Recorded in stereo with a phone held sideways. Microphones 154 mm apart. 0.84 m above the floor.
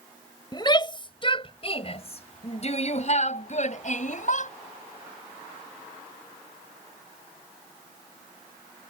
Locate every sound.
0.5 s a shout: 30° left (ahead or behind); by 4.5 s 55° left (ahead or behind)